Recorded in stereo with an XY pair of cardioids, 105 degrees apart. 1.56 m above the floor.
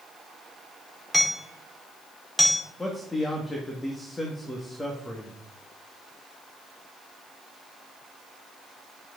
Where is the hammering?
5° left, 5 m.